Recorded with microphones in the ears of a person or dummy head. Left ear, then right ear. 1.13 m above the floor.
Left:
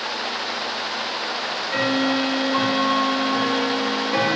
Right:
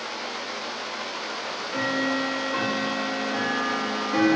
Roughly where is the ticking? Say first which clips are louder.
Left 5 dB; left.